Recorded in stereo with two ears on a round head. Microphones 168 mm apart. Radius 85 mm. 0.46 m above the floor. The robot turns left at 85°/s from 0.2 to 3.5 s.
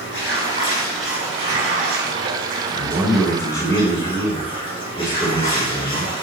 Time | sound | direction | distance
0.0 | running water | 70° left | 3.5 m
2.7 | a man speaking | 140° right | 2 m